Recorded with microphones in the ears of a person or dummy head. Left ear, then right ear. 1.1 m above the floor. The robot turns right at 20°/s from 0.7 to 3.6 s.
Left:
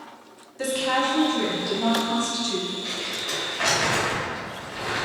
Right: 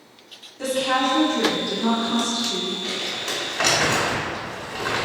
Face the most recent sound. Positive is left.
turn(degrees=-25)  # may be behind; listen again after turning